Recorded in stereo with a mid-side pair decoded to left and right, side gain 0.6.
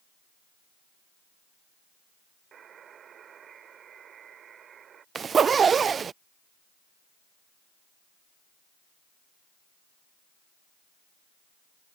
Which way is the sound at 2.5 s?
45° right.